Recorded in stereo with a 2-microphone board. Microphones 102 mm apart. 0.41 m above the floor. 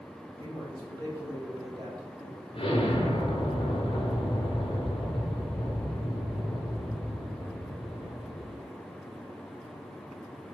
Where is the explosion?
55° left (ahead or behind), 1.7 m.